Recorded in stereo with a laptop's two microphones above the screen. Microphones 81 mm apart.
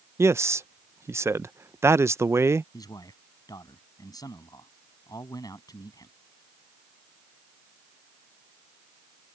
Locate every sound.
0.2 s a man speaking: 35° right (ahead or behind)
2.7 s a man speaking: 45° left (ahead or behind)